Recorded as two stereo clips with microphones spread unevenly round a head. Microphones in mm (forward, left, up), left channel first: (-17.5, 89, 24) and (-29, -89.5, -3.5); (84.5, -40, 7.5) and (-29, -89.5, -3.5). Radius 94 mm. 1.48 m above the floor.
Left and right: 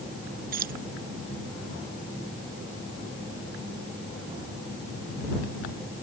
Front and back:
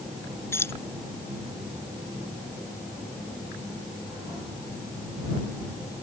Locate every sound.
0.5 s keys jangling: 45° right